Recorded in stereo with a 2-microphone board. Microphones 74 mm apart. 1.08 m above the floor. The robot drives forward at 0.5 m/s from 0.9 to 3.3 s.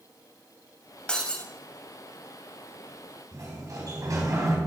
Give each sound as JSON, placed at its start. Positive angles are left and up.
{"t": 1.1, "sound": "breaking glass", "side_deg": 15, "distance_m": 1.7}
{"t": 3.3, "sound": "a sliding door", "side_deg": -50, "distance_m": 3.0}